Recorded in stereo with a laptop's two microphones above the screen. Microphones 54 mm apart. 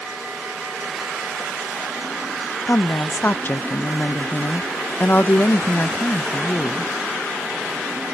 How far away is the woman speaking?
About 0.6 m.